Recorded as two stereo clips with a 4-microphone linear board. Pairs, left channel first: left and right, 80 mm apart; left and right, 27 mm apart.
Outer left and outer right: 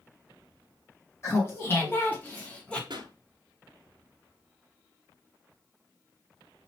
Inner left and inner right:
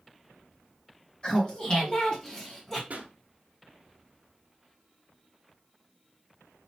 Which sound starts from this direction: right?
A pop, at 2.9 s.